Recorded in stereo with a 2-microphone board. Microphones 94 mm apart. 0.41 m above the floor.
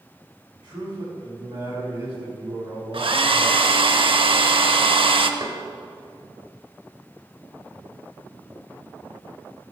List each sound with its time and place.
0.5 s a man speaking: 45° right (ahead or behind), 3.5 m; by 3.6 s 35° right (ahead or behind), 4.5 m
2.9 s a hair dryer: 70° right (ahead or behind), 0.6 m
5.4 s knocking: 45° right (ahead or behind), 1.7 m